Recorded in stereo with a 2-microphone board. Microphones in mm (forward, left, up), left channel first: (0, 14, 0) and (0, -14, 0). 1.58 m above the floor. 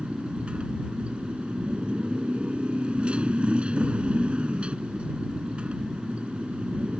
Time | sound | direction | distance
0.0 | a motorcycle | 40° right (ahead or behind) | ?